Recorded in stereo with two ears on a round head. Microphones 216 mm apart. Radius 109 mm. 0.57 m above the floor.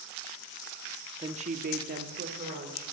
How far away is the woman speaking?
About 0.7 m.